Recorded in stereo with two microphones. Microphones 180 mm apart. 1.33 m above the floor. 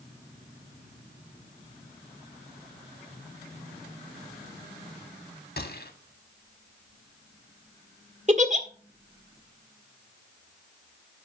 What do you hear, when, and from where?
5.6 s a gunshot: 60° left (ahead or behind), 1.6 m
8.3 s a giggle: 40° right (ahead or behind), 1.7 m